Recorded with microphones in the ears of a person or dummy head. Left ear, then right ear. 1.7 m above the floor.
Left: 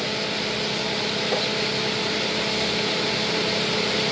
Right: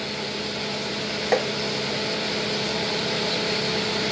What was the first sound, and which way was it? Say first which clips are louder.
Tapping: right 5 dB; 80° right.